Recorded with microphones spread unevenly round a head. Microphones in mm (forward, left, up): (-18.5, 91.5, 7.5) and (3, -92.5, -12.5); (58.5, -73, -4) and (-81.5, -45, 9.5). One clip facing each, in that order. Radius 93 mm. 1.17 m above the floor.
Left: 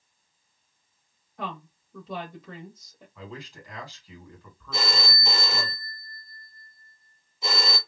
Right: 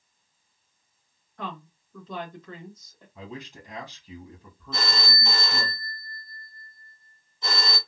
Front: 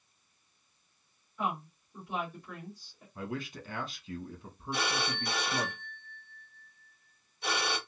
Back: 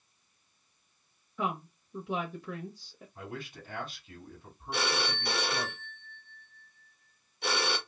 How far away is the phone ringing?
About 1.0 m.